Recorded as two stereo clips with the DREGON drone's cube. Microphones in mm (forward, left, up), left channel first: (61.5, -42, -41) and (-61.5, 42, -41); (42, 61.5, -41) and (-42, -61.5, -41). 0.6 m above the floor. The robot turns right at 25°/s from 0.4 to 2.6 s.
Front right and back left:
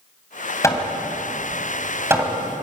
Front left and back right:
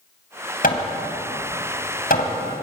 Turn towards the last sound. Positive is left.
turn(degrees=85)